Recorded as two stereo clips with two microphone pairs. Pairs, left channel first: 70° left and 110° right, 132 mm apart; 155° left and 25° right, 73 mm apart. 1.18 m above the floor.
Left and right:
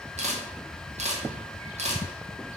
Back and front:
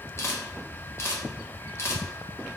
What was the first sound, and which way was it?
A camera shutter, 145° right.